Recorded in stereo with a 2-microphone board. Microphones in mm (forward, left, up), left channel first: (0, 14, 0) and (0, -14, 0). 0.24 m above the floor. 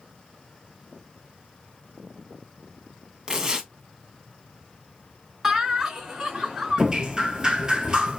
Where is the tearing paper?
20° right (ahead or behind), 0.7 m.